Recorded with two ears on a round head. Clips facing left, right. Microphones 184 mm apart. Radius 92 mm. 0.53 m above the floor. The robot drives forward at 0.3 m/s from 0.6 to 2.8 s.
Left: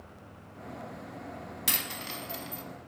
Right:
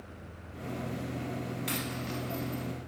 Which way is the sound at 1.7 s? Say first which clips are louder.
Right 5 dB; 55° left (ahead or behind).